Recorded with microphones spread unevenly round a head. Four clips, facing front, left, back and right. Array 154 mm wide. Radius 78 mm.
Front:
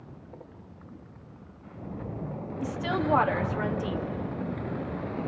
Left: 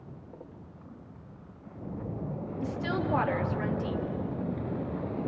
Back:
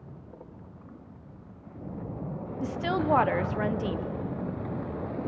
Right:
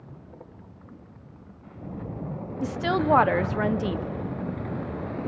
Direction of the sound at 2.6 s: 100° right.